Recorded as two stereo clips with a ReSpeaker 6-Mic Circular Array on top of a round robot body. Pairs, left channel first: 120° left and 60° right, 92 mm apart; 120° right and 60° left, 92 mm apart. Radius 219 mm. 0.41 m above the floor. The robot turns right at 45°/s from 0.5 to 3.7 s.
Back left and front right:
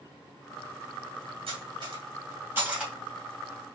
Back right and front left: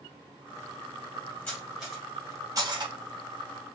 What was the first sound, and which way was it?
Cutlery clinking, 45° right.